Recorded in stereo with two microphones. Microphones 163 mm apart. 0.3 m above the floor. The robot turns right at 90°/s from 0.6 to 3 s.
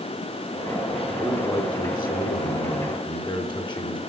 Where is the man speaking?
15° right, 4 m; by 4.0 s 150° left, 4 m.